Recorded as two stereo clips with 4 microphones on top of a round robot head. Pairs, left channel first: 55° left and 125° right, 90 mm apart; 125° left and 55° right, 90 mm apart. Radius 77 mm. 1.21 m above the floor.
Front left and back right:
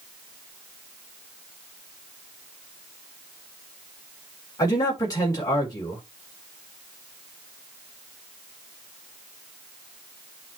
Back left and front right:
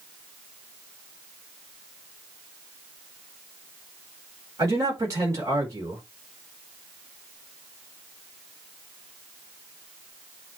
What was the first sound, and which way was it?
A man speaking, straight ahead.